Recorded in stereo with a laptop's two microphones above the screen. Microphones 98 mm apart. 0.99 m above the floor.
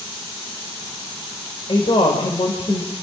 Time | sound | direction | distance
1.7 | a woman speaking | 70° left (ahead or behind) | 4 m